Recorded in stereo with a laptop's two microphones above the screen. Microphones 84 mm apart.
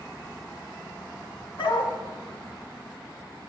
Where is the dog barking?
70° left (ahead or behind), 3.5 m.